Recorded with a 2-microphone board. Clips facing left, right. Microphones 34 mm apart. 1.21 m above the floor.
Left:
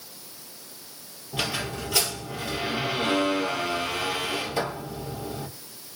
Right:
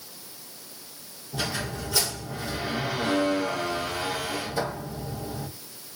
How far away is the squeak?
About 3 m.